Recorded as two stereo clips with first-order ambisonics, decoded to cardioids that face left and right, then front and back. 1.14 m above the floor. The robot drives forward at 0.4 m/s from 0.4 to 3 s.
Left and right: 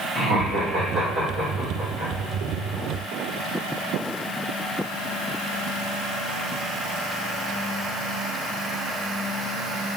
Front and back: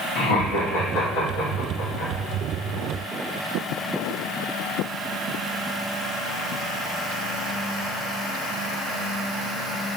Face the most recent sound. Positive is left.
turn(degrees=-20)